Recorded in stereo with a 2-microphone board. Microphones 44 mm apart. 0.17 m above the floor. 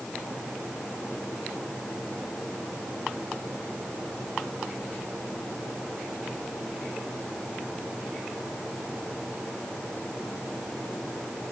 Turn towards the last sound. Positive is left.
No sound to turn to.